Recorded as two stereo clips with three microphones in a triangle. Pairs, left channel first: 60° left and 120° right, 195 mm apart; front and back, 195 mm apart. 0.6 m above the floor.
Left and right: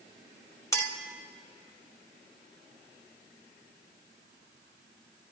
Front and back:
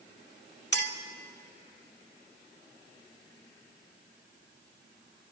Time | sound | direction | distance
0.7 | a clink | 15° right | 1.1 m